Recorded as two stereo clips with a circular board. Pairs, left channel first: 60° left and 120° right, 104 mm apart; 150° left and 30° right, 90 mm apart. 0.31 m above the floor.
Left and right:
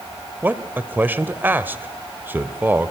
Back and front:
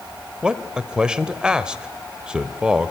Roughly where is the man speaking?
Right.